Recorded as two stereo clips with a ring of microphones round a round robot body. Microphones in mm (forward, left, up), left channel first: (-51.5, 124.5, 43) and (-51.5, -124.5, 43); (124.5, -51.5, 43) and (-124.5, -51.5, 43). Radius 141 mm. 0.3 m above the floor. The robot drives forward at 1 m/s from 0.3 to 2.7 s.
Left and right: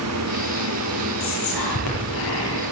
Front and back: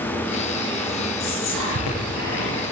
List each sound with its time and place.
1.2 s whispering: 45° left, 9 m; by 2.6 s 55° left, 8 m